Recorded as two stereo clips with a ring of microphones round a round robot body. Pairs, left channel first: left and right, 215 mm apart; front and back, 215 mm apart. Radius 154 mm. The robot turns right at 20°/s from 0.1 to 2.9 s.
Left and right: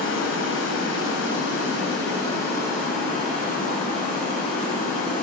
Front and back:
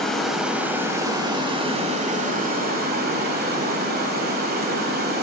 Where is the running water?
85° left, 1.3 m; by 5.2 s 145° left, 1.3 m.